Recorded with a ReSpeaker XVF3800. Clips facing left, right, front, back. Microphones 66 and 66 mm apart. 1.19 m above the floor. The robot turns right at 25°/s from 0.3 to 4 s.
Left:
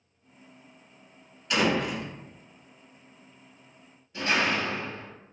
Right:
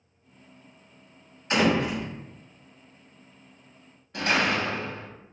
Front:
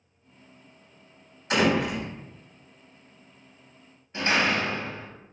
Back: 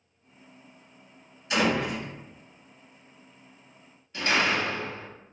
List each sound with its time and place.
1.5 s a door slam: 35° right, 1.0 m; by 2.1 s 20° right, 1.0 m
4.1 s a door slam: 65° right, 0.9 m